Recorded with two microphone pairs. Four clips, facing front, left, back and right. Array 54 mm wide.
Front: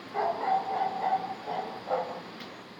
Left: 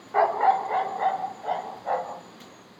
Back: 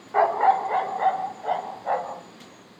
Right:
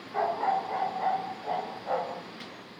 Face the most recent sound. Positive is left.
turn(degrees=155)